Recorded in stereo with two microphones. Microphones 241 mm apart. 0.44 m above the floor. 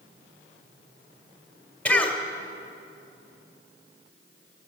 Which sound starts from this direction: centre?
A cough, at 1.9 s.